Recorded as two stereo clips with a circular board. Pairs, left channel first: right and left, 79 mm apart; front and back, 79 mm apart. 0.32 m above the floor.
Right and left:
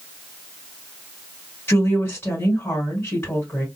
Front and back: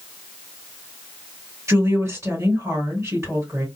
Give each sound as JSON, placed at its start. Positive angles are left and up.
{"t": 1.7, "sound": "a woman speaking", "azimuth_deg": -145, "distance_m": 2.0}